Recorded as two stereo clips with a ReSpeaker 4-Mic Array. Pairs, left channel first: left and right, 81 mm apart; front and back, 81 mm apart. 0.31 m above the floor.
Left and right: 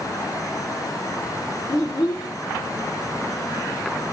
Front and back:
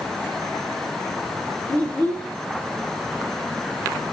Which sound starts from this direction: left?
A child speaking, at 1.7 s.